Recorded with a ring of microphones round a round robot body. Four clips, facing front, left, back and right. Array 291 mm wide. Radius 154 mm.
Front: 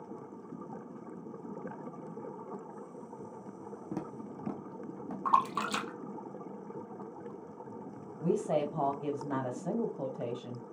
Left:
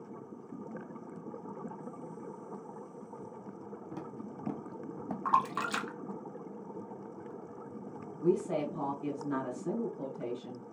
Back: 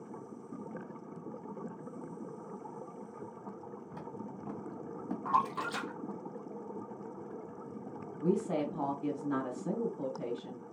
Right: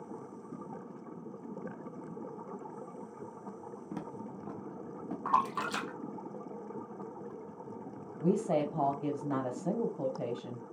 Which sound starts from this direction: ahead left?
A splash, at 5.2 s.